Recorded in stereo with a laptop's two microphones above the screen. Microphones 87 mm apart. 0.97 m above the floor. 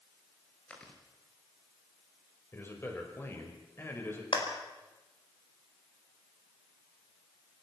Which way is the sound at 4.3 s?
70° left (ahead or behind).